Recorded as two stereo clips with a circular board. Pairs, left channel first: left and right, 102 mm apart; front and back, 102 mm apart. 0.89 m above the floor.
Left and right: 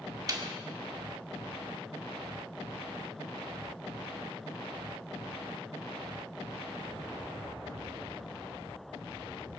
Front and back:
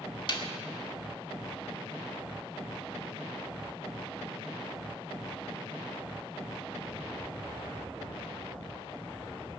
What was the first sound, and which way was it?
A snare drum, 40° right.